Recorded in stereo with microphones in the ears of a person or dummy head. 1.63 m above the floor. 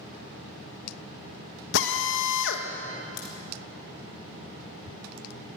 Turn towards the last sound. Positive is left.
turn(degrees=65)  # may be behind; listen again after turning